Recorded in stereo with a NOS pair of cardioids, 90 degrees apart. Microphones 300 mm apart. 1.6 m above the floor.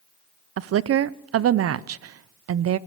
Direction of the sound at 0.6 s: 55° right.